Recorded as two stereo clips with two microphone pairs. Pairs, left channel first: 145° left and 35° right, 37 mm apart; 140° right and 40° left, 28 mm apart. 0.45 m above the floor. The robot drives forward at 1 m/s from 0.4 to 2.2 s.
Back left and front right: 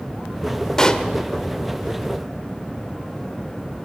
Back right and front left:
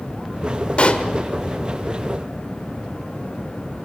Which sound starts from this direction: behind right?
A pop, at 0.8 s.